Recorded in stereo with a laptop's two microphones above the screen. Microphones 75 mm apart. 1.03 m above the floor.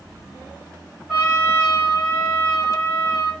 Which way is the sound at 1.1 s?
5° right (ahead or behind).